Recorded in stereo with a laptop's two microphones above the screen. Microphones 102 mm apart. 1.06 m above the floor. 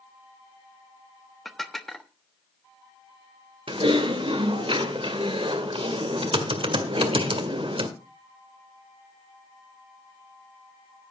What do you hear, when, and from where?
1.4 s dishes clattering: centre (ahead or behind), 1.0 m
3.7 s typing on a keyboard: 60° right (ahead or behind), 1.8 m